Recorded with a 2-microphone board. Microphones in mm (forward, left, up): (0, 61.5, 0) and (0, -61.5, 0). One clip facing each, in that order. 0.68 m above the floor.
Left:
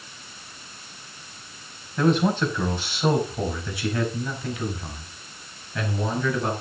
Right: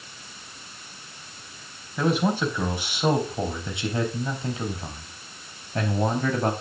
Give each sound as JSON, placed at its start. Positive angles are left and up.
{"t": 2.0, "sound": "a man speaking", "side_deg": -10, "distance_m": 4.0}